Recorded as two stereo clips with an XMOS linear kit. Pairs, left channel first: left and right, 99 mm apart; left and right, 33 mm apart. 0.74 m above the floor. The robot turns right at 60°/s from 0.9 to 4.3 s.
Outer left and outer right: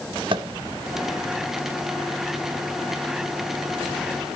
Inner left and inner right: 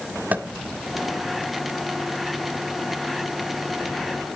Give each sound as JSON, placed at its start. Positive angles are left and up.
{"t": 0.3, "sound": "tapping", "side_deg": -55, "distance_m": 1.3}